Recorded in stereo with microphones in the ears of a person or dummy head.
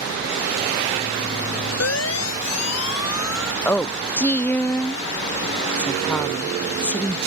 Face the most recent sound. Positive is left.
turn(degrees=5)  # may be behind; listen again after turning